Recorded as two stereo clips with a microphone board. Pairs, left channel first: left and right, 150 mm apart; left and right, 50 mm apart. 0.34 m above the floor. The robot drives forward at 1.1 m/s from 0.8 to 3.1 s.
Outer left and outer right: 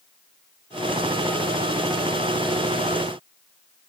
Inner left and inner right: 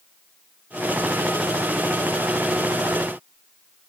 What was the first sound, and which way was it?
Only background noise.